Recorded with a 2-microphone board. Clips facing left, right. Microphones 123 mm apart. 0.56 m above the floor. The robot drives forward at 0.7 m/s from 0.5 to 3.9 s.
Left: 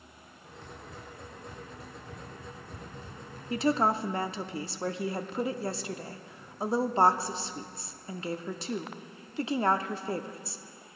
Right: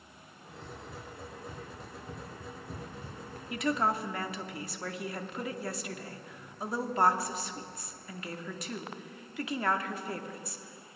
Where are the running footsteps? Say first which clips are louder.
Right 1 dB; 10° right (ahead or behind), 5.5 m; by 3.4 s 60° right (ahead or behind), 4 m.